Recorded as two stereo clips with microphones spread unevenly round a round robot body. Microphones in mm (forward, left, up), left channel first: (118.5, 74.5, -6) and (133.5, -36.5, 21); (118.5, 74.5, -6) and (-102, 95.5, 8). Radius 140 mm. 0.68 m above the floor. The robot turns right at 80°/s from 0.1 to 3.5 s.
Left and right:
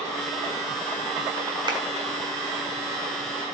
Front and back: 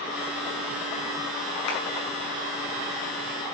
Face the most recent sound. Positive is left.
turn(degrees=115)